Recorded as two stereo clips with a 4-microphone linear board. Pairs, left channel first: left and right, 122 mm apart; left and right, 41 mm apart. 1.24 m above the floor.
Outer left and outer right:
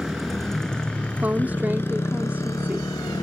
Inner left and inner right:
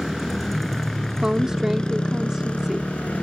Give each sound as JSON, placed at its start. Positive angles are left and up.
{"t": 0.0, "sound": "a motorcycle", "side_deg": 0}
{"t": 1.2, "sound": "a woman speaking", "side_deg": -15}